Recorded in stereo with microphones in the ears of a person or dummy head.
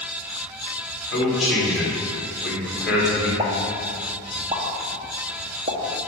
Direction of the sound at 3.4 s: 25° right (ahead or behind).